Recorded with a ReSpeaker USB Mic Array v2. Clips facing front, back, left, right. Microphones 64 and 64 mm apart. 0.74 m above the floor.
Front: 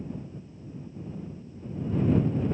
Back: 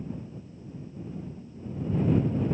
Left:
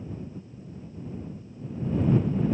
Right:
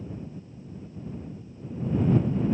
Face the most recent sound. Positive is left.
No sound to turn to.